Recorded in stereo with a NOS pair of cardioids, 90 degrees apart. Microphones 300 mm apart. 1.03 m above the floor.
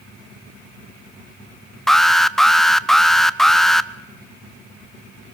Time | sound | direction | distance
1.9 | an alarm | straight ahead | 0.7 m